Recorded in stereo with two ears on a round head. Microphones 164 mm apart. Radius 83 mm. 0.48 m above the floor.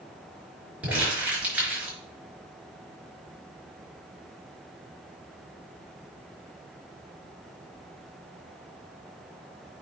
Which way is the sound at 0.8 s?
10° right (ahead or behind).